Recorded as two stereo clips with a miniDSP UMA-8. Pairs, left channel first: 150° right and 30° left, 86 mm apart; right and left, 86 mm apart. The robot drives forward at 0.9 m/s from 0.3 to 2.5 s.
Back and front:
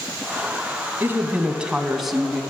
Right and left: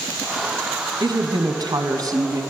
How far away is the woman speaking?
About 2 m.